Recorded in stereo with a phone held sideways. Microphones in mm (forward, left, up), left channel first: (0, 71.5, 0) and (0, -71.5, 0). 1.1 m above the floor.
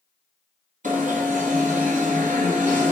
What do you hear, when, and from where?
0.8 s an alarm: 60° right (ahead or behind), 2.5 m